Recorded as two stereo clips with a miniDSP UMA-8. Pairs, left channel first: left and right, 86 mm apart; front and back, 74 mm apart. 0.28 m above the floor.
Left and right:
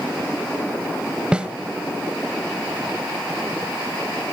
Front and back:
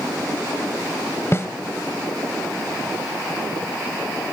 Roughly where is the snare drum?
Ahead.